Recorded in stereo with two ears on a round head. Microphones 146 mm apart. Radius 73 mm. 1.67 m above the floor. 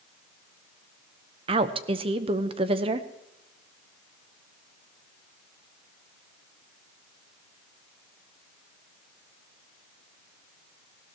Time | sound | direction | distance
1.5 | a woman speaking | 35° right (ahead or behind) | 0.9 m